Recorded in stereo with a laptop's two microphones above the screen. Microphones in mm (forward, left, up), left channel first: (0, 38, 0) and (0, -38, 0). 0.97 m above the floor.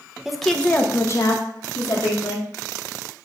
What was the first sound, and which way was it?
A woman speaking, 5° right (ahead or behind).